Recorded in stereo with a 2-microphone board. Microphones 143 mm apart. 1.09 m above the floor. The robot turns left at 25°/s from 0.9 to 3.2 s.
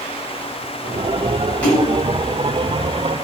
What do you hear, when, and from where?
1.6 s a splash: 10° left (ahead or behind), 6 m; by 1.9 s centre (ahead or behind), 6 m